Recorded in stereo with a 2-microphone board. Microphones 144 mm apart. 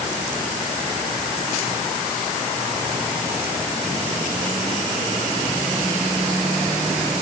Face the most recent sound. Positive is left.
No sound to turn to.